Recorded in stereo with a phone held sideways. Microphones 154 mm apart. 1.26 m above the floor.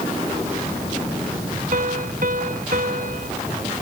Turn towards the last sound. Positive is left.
turn(degrees=-60)  # may be behind; listen again after turning